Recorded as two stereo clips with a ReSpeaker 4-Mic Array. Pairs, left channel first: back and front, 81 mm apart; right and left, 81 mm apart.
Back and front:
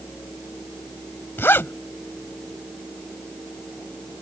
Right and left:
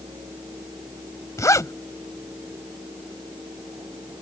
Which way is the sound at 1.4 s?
125° right.